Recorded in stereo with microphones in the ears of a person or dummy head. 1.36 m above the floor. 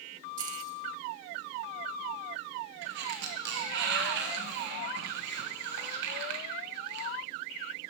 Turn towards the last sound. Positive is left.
turn(degrees=-65)  # may be behind; listen again after turning